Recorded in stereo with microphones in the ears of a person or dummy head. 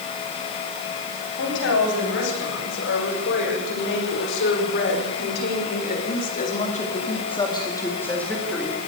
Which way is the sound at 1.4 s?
70° left (ahead or behind).